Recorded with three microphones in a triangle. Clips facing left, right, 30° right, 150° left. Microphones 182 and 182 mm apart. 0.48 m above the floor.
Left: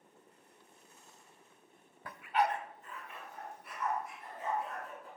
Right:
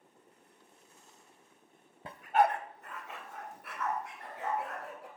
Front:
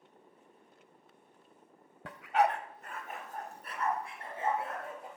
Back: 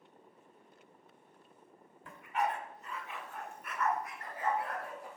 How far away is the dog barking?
About 0.6 m.